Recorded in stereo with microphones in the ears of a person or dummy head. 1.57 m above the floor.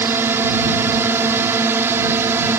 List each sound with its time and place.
0.0 s a drone: 15° right (ahead or behind)